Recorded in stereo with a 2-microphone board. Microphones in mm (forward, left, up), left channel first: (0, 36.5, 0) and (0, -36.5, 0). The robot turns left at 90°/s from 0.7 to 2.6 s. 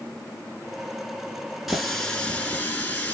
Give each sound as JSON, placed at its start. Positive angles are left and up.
{"t": 1.7, "sound": "a running tap", "side_deg": -5, "distance_m": 0.9}